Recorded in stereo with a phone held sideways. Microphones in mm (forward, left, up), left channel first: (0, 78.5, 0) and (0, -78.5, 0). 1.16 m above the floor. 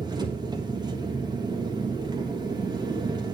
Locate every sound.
0.0 s an engine running: 25° right (ahead or behind), 1.6 m